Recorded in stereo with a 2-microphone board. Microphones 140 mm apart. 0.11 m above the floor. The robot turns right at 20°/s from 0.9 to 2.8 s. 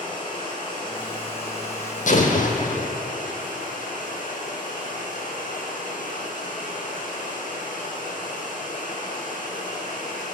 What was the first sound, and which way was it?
Running water, 35° left.